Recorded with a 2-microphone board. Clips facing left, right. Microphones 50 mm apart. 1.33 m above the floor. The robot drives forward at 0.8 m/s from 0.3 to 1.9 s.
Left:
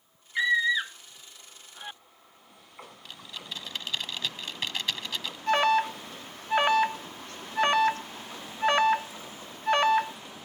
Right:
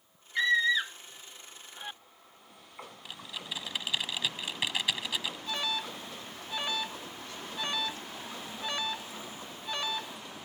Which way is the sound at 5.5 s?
65° left (ahead or behind).